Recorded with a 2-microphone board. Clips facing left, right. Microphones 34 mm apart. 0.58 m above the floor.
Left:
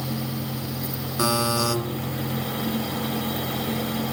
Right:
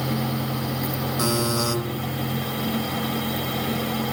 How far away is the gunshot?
No gunshot in this recording.